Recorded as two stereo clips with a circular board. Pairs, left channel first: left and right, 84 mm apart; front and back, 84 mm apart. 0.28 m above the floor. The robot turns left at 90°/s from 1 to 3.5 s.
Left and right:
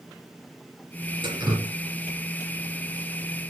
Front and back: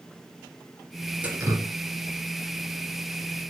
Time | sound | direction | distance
1.2 | dripping | 105° right | 2.5 m